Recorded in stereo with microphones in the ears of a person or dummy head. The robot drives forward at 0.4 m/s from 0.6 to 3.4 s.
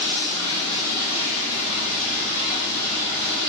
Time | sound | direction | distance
0.0 | running water | 75° left (ahead or behind) | 0.9 m